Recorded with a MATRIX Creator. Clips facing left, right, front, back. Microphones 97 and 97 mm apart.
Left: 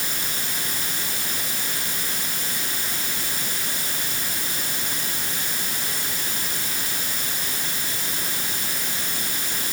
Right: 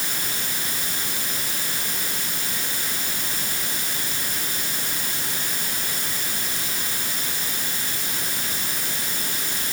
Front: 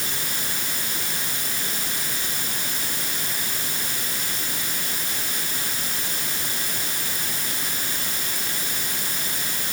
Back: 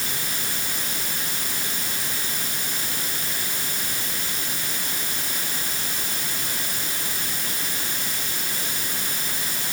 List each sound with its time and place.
Only background noise.